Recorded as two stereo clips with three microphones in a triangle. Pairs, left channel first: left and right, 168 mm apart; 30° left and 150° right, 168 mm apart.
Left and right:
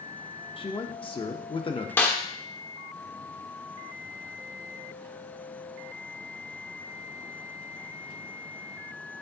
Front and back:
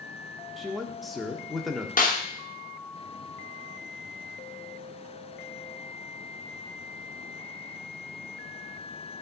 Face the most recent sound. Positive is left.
turn(degrees=15)